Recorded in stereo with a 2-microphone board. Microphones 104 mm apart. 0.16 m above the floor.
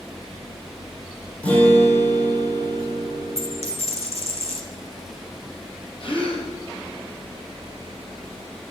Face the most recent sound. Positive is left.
turn(degrees=55)  # may be behind; listen again after turning